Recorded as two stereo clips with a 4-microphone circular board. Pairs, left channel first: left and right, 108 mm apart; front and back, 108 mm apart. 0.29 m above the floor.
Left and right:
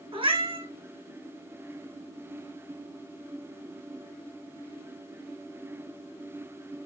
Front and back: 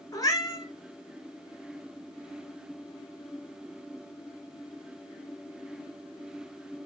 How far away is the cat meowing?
About 1.2 m.